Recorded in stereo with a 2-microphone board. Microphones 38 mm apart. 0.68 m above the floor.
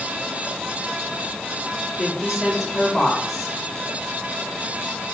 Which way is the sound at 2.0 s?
10° right (ahead or behind).